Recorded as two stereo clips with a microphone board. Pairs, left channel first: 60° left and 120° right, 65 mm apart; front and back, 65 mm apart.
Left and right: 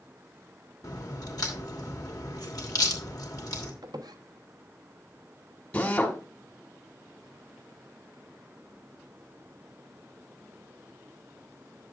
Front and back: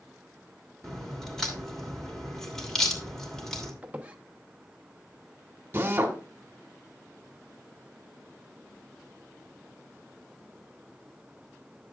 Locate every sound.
0.8 s a crack: 85° left, 2.5 m
3.8 s a squeak: 110° right, 0.9 m
5.7 s a drill: 125° left, 1.6 m